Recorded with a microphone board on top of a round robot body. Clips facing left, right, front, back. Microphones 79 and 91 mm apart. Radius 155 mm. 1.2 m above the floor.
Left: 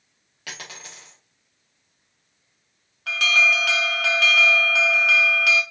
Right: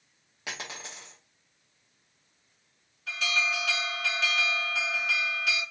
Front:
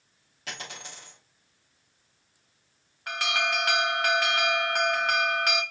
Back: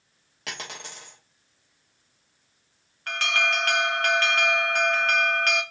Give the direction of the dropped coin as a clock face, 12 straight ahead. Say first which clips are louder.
Even, back 3 dB; 5 o'clock.